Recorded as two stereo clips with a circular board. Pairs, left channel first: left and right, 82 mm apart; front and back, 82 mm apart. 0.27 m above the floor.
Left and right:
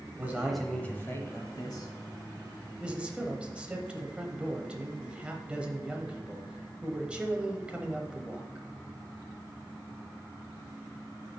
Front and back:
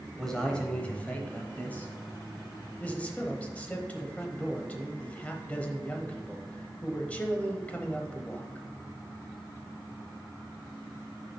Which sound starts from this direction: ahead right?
A man speaking, at 2.8 s.